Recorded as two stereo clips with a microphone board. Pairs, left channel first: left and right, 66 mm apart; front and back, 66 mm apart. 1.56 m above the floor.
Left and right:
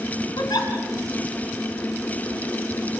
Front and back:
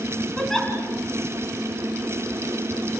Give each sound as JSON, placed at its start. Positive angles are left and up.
{"t": 0.4, "sound": "a giggle", "azimuth_deg": 85, "distance_m": 4.5}